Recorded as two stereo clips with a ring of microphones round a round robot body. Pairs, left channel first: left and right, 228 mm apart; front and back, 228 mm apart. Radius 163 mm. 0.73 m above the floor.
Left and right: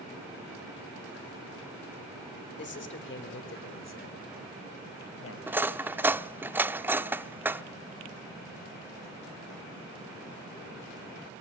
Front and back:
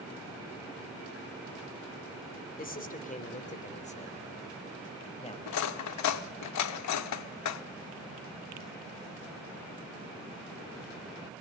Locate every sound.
2.6 s a man speaking: 50° left, 3 m; by 5.4 s 65° left, 5 m
5.5 s cutlery clinking: 5° right, 0.8 m